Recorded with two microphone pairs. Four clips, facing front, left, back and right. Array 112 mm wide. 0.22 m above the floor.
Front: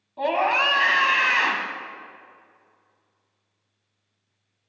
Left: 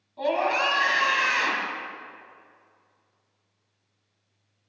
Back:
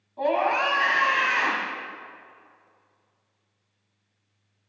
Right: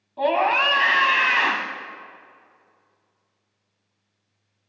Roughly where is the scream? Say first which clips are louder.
Right 4 dB, front 1 dB; right.